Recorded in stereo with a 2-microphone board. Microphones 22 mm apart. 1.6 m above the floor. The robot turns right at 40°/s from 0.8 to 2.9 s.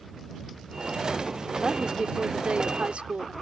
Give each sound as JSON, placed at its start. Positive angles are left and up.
{"t": 1.6, "sound": "a woman speaking", "azimuth_deg": -145}